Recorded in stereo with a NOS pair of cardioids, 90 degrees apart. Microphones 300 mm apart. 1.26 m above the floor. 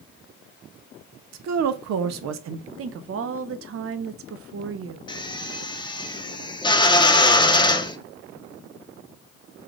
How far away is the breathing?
No breathing in this recording.